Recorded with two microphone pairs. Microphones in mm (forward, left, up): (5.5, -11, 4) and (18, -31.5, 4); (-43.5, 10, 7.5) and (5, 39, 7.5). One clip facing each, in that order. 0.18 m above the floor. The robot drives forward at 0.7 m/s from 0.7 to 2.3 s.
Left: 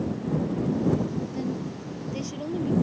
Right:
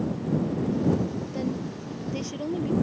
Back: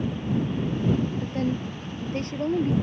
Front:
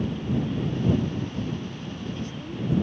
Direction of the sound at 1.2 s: 130° right.